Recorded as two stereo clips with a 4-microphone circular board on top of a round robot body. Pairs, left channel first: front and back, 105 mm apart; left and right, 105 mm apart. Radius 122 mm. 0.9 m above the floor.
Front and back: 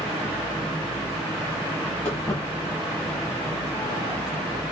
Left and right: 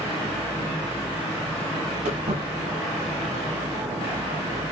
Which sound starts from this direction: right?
Footsteps, at 2.0 s.